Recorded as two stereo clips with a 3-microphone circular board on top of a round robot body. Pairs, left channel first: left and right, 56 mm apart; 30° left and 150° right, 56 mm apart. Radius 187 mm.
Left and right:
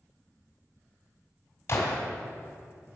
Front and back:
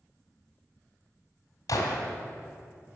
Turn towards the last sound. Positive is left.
turn(degrees=45)